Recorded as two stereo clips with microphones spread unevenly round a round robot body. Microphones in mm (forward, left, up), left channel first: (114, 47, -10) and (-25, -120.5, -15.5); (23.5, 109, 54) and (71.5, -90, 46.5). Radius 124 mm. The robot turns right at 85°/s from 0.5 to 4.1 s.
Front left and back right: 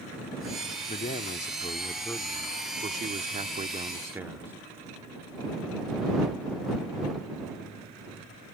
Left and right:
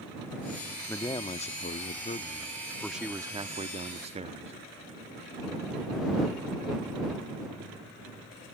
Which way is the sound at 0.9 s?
25° left.